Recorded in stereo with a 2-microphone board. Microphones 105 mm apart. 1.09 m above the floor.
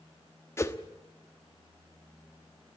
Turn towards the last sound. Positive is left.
turn(degrees=25)  # may be behind; listen again after turning